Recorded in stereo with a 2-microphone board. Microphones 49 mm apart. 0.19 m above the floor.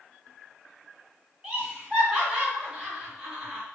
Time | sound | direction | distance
1.4 | laughter | 10° right (ahead or behind) | 2.0 m